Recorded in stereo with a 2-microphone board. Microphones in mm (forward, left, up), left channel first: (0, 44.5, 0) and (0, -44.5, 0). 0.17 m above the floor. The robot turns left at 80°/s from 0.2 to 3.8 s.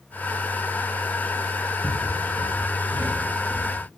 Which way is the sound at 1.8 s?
45° right (ahead or behind).